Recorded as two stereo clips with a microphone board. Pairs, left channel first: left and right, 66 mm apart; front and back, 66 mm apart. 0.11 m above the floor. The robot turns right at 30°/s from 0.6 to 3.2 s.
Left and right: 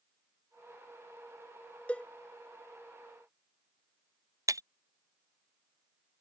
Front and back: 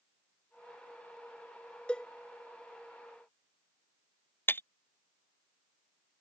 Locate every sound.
1.9 s a cowbell: 50° left; by 2.1 s 55° left
4.5 s breaking glass: 55° right